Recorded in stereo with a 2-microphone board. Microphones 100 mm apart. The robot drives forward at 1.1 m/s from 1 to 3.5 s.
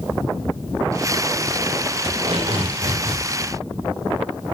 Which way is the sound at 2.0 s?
85° right.